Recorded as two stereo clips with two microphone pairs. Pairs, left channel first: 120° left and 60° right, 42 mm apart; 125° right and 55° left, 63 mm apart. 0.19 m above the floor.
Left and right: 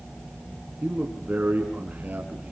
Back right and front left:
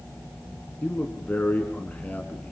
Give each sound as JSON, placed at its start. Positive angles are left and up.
{"t": 0.8, "sound": "a man speaking", "azimuth_deg": -70, "distance_m": 2.0}